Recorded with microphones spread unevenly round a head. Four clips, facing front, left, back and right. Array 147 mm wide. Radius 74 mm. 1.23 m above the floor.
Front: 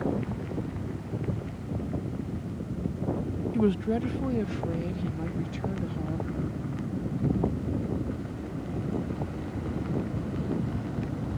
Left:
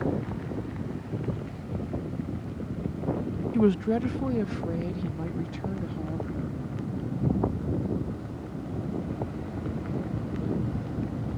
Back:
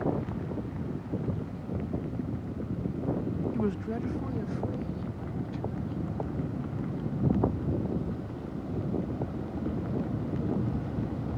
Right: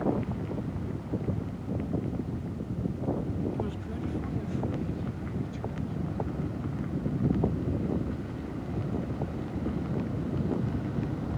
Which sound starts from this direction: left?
A woman speaking, at 3.5 s.